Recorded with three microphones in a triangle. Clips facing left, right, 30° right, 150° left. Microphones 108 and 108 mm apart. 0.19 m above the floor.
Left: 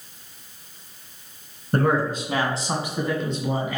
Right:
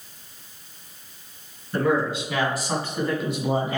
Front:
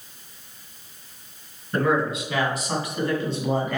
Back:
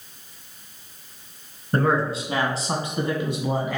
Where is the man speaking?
105° left, 2 m; by 3.8 s 125° right, 1.7 m.